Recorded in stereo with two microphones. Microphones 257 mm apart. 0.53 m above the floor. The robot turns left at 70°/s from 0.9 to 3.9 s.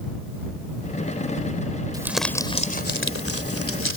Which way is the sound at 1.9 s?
165° right.